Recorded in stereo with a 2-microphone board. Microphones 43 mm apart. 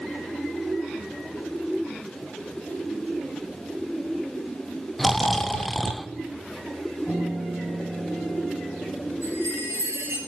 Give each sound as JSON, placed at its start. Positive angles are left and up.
{"t": 5.0, "sound": "snoring", "side_deg": 5, "distance_m": 0.6}
{"t": 7.1, "sound": "a piano", "side_deg": 0, "distance_m": 5.5}
{"t": 9.2, "sound": "a chime", "side_deg": -80, "distance_m": 6.5}